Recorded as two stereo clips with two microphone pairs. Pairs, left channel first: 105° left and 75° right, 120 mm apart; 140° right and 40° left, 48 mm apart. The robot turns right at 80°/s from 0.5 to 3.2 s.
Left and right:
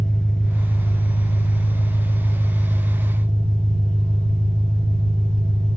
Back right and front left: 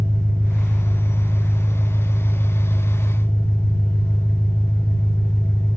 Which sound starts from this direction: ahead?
An engine running, at 0.0 s.